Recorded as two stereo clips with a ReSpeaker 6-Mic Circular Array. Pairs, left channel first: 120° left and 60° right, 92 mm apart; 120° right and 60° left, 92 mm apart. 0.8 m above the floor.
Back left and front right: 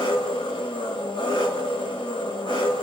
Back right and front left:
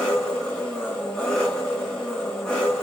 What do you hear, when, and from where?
0.0 s an engine running: 155° left, 4.5 m